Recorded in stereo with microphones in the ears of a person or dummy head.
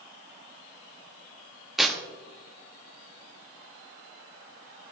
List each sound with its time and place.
1.8 s tearing paper: centre (ahead or behind), 1.2 m